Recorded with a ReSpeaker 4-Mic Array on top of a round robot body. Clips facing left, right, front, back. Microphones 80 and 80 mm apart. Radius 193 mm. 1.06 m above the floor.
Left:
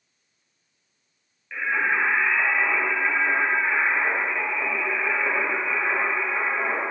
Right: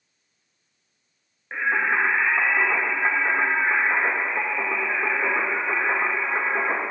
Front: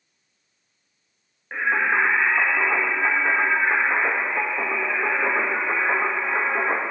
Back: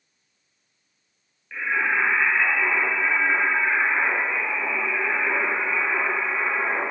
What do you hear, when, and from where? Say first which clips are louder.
1.5 s singing: right 2 dB, front 3 dB; 40° right, 1.7 m